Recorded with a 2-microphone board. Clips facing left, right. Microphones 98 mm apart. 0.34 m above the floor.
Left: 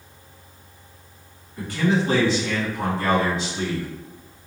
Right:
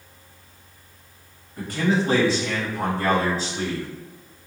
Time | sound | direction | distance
1.6 | a man speaking | 40° right (ahead or behind) | 1.8 m